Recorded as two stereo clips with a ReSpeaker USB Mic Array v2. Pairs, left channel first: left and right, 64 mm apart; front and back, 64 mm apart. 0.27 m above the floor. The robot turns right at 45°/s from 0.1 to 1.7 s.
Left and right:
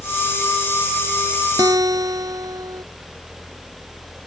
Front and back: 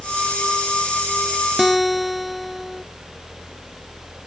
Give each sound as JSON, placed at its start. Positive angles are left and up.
{"t": 1.6, "sound": "a guitar", "azimuth_deg": -95}